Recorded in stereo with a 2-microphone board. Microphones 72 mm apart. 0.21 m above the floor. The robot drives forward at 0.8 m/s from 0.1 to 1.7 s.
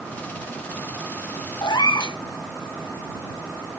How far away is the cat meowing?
About 1.1 m.